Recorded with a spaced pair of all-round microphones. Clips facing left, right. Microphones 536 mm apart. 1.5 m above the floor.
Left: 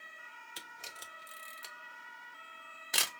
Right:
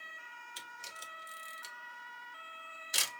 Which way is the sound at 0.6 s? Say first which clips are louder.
Left 3 dB; 75° left (ahead or behind).